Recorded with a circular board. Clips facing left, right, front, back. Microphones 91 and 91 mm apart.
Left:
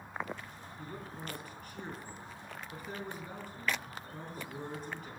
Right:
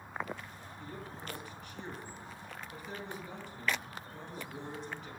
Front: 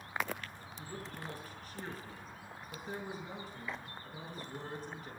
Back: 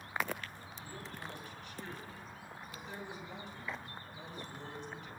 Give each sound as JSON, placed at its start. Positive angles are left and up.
{"t": 0.8, "sound": "a man speaking", "azimuth_deg": 45, "distance_m": 4.5}